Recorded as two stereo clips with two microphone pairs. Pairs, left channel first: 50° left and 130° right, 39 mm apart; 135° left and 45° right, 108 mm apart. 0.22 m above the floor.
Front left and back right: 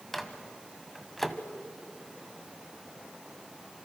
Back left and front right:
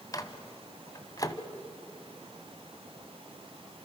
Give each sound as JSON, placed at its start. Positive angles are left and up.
{"t": 0.1, "sound": "a microwave", "azimuth_deg": 135, "distance_m": 1.4}